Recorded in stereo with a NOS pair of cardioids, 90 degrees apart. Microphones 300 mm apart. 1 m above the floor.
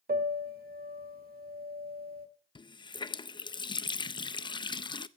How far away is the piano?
About 1.8 m.